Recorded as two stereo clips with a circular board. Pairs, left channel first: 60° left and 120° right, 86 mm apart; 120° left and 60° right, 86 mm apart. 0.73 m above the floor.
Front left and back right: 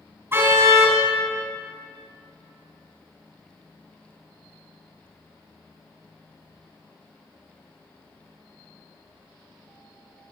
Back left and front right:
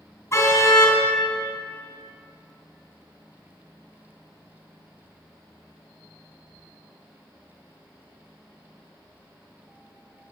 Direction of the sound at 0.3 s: Straight behind.